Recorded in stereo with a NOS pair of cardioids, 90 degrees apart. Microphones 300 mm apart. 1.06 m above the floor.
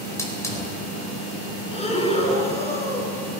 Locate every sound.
0.2 s a hiss: 10° left, 4.5 m
1.7 s breathing: 20° left, 4 m